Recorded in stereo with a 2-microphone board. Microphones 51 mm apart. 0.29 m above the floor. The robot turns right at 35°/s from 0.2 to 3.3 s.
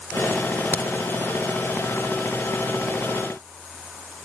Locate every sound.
0.7 s a crack: 40° left (ahead or behind), 1.6 m